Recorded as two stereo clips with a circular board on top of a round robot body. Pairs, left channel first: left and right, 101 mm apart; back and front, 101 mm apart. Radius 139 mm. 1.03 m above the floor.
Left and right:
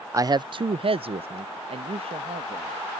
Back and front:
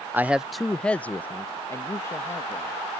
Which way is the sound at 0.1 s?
55° right.